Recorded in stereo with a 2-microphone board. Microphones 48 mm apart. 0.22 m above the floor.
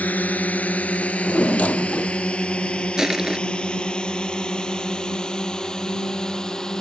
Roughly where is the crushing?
Centre.